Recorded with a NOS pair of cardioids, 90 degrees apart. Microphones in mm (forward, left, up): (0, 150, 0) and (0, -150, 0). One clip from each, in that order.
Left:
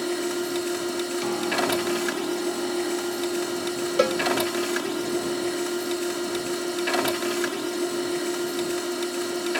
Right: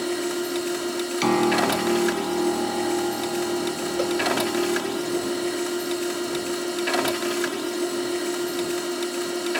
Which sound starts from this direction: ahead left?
A cowbell, at 4.0 s.